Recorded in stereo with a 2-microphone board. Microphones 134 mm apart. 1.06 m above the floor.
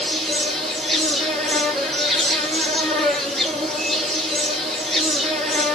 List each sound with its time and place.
0.0 s an insect: centre (ahead or behind), 2 m